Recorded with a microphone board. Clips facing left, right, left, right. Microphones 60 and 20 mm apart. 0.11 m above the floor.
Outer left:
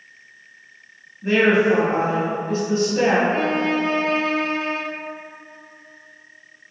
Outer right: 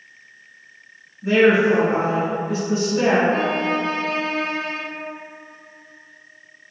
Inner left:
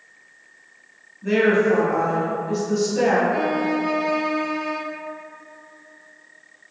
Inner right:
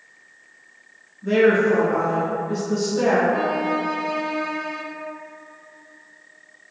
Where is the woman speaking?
45° left (ahead or behind), 1.9 m.